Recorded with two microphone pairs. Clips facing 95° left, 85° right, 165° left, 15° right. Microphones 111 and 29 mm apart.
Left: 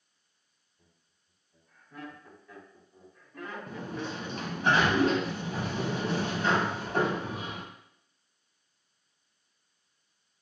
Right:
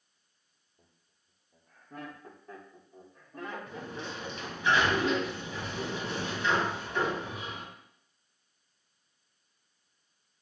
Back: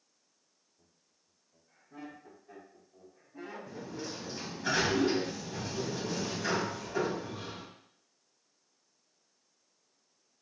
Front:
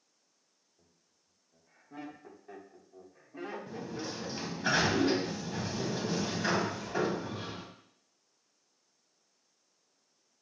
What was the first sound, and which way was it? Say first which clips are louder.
Laughter: right 1 dB, front 2 dB; 80° right.